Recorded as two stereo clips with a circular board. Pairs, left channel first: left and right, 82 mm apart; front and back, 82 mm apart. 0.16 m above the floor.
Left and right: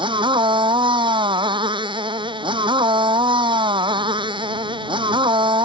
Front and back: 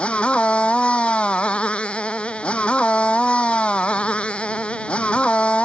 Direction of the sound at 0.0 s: 75° right.